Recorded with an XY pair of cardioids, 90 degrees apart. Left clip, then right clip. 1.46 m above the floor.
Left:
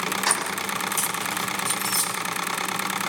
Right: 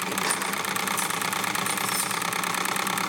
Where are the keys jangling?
50° left, 6 m.